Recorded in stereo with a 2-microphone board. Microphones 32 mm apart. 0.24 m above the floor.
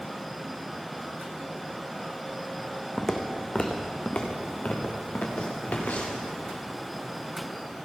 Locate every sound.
3.0 s footsteps: 10° left (ahead or behind), 1.2 m; by 6.2 s 60° left (ahead or behind), 2.5 m